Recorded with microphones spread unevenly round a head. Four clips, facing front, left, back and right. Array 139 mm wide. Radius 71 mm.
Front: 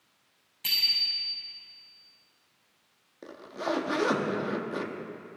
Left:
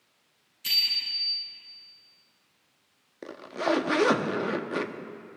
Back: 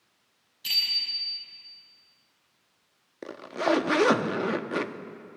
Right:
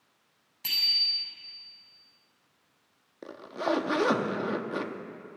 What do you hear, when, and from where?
0.6 s a bicycle bell: 55° right, 6.5 m
3.2 s a zipper: 155° left, 0.6 m